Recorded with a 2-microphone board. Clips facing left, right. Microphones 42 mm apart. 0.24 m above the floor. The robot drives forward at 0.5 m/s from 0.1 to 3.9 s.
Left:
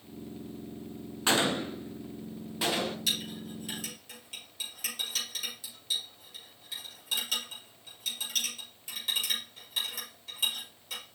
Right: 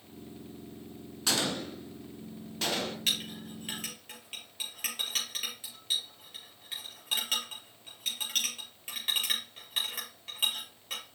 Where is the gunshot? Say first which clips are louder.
Left 4 dB; 35° left (ahead or behind), 0.6 m; by 3.0 s 15° left (ahead or behind), 1.4 m.